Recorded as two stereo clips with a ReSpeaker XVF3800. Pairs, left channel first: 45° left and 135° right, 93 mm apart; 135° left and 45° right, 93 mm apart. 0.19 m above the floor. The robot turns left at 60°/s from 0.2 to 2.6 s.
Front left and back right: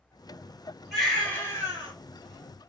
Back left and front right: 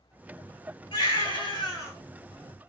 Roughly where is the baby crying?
Behind left.